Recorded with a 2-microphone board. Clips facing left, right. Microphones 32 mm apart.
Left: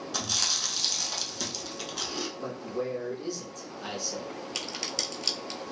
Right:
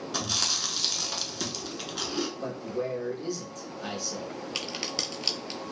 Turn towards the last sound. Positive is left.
turn(degrees=-15)  # may be behind; listen again after turning